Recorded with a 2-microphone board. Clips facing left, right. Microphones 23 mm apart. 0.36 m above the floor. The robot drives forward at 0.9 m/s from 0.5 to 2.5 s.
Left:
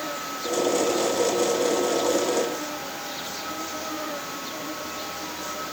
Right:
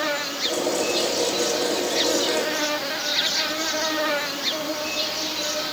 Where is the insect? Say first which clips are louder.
Right 6 dB; 50° right (ahead or behind); by 5.7 s 60° right (ahead or behind).